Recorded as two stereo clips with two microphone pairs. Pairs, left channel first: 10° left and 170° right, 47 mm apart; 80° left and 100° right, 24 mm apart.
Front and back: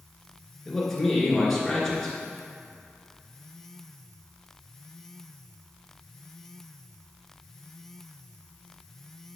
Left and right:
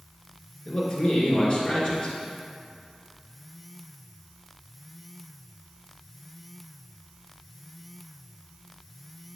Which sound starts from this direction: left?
A man speaking, at 0.7 s.